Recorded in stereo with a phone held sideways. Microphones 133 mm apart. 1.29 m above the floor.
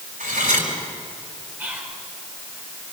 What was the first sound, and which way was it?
Cutlery clinking, 80° right.